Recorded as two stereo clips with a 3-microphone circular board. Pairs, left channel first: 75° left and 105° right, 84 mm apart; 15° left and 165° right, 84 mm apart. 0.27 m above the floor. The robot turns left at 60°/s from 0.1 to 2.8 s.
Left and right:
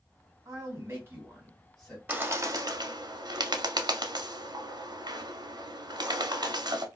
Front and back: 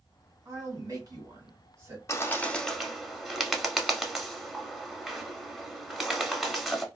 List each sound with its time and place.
0.5 s a man speaking: 120° right, 1.6 m; by 2.0 s 145° left, 1.6 m
2.1 s a bird: 35° right, 0.6 m; by 6.9 s 80° right, 0.6 m